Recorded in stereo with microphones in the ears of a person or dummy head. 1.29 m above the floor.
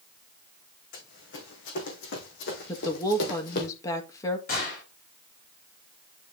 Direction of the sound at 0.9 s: 65° left (ahead or behind).